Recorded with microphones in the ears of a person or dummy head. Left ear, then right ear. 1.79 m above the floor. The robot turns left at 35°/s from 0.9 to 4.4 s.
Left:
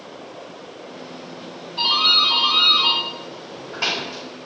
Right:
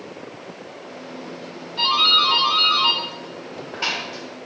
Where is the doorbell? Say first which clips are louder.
Even; 25° right (ahead or behind), 1.7 m; by 4.3 s 65° left (ahead or behind), 1.7 m.